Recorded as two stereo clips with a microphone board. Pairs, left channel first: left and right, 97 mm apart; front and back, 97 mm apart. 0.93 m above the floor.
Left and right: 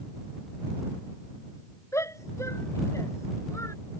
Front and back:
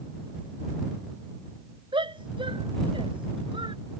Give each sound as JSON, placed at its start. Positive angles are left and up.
{"t": 1.9, "sound": "a shout", "azimuth_deg": 150}